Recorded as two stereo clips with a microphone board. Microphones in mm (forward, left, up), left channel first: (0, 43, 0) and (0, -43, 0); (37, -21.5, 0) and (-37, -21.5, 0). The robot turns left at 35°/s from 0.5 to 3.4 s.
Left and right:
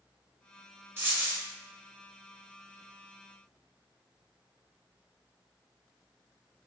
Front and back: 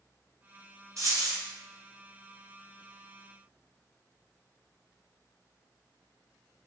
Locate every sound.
1.0 s a dropped coin: 145° right, 1.1 m; by 1.4 s 160° right, 1.1 m